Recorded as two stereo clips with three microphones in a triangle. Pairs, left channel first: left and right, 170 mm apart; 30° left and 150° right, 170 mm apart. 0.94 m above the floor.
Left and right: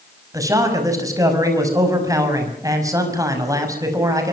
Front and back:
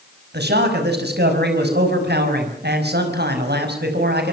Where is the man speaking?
160° right, 6 m.